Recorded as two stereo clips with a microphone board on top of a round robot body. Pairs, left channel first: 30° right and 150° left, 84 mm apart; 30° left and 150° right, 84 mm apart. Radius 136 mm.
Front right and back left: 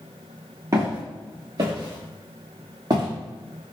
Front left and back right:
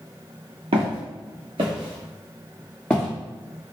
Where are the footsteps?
150° right, 1.4 m; by 3.1 s 100° left, 0.9 m.